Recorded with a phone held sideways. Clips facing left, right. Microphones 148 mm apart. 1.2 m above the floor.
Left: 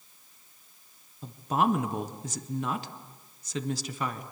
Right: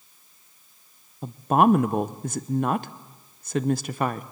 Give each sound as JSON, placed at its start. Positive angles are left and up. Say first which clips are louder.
{"t": 1.2, "sound": "a woman speaking", "louder": "right 7 dB", "side_deg": -55, "distance_m": 0.7}